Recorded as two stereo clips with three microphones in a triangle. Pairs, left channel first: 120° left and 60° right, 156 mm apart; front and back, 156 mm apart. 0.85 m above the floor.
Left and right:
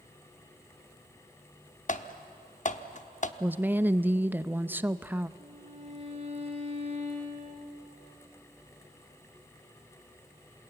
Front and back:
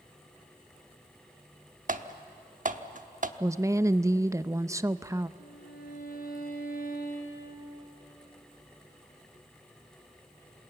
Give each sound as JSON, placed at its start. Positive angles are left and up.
{"t": 1.9, "sound": "typing on a keyboard", "azimuth_deg": 155, "distance_m": 0.9}
{"t": 3.4, "sound": "a woman speaking", "azimuth_deg": -125, "distance_m": 0.6}
{"t": 5.4, "sound": "a violin", "azimuth_deg": -15, "distance_m": 5.0}